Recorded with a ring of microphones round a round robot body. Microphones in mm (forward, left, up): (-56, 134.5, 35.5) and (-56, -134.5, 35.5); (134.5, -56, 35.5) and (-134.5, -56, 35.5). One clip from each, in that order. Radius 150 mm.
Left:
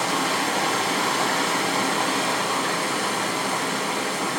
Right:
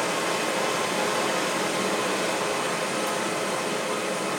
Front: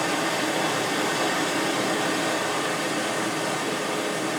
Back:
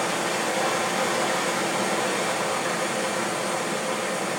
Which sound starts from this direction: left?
Running water, at 0.0 s.